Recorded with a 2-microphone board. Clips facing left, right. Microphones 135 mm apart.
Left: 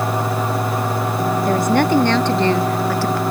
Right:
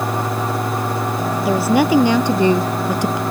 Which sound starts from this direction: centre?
A woman speaking, at 1.4 s.